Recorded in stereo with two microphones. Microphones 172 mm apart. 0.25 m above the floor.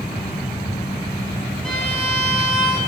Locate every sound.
1.6 s a violin: 5° left (ahead or behind), 2.5 m